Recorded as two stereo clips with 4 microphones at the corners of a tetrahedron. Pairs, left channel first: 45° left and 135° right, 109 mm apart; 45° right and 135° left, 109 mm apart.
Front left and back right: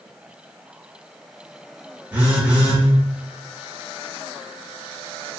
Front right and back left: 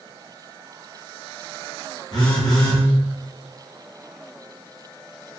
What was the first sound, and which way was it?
A phone buzzing, 65° right.